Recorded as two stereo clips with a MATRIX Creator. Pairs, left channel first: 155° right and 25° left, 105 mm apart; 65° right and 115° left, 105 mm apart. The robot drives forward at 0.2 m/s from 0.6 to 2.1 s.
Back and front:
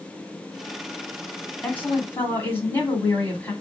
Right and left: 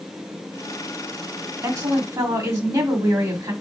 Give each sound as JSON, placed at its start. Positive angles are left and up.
{"t": 1.6, "sound": "a woman speaking", "azimuth_deg": 140, "distance_m": 1.6}